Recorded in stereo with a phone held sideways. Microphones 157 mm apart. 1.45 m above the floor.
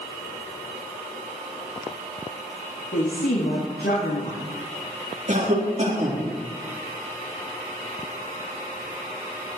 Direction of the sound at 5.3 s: 50° right (ahead or behind).